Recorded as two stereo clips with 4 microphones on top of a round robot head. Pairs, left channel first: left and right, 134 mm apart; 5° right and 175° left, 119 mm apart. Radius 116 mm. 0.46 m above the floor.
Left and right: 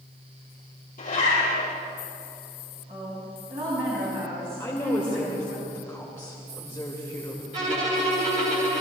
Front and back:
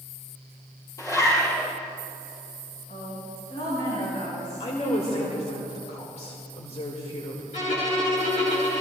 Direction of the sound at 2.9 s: 40° right.